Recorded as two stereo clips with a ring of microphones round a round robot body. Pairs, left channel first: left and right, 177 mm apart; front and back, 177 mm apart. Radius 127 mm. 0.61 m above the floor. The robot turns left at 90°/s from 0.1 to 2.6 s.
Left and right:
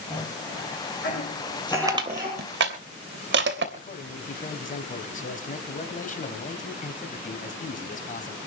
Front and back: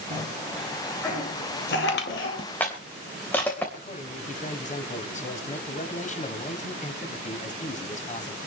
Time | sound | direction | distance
0.1 | a cough | 165° left | 8 m
1.9 | crushing | 20° right | 3 m
3.8 | a man speaking | 45° left | 3.5 m